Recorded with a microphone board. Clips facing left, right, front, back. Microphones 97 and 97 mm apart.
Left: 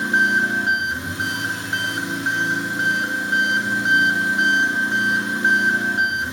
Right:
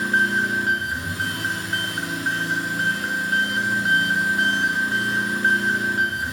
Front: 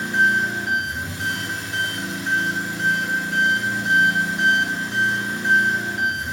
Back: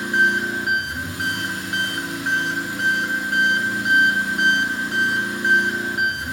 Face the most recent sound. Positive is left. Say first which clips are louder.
# left 2 dB, even
turn(degrees=155)